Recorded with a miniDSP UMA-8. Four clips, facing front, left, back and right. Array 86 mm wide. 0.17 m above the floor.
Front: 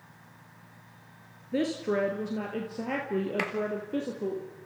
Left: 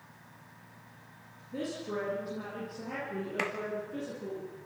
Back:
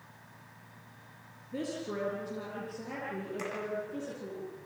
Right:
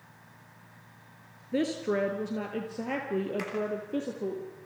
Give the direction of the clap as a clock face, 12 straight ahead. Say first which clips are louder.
Left 2 dB, front 5 dB; 11 o'clock.